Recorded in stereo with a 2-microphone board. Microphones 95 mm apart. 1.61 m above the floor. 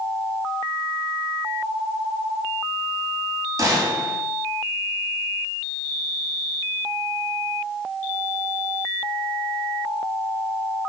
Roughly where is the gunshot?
Right.